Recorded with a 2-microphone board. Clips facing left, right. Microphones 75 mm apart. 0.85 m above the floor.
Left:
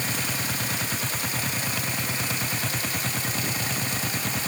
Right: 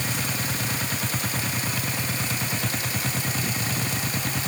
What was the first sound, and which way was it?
Only background noise.